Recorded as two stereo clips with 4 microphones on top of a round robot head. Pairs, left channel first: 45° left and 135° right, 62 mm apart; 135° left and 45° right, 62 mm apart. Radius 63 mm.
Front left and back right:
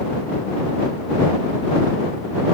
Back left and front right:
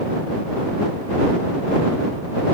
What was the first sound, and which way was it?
Only background noise.